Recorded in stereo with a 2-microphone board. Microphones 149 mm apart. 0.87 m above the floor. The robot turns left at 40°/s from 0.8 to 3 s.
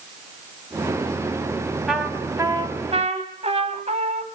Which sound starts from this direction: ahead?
A trumpet, at 1.9 s.